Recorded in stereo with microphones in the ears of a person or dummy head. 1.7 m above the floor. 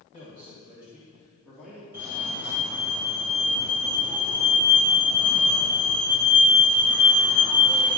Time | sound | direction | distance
0.1 | a man speaking | 25° right (ahead or behind) | 2.5 m
1.9 | a fire alarm | 10° right (ahead or behind) | 1.4 m